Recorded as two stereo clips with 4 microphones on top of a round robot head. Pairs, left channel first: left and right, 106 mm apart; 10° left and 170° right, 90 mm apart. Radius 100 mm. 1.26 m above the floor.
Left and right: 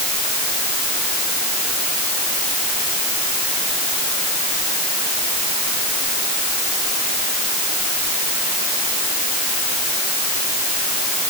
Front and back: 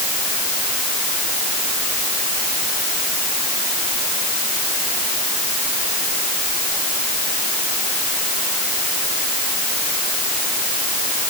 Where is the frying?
I don't hear frying.